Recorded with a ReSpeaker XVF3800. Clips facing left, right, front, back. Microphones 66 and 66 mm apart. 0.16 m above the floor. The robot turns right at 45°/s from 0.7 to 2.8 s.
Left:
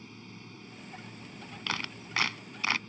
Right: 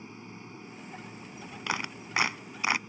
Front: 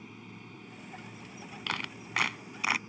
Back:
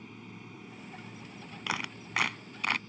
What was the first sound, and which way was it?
An aircraft, 85° right.